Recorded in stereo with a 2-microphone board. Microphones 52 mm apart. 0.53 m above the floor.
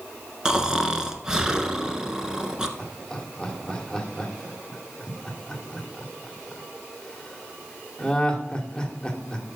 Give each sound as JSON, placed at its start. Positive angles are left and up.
{"t": 0.5, "sound": "snoring", "side_deg": -15, "distance_m": 1.0}
{"t": 2.8, "sound": "laughter", "side_deg": 15, "distance_m": 1.7}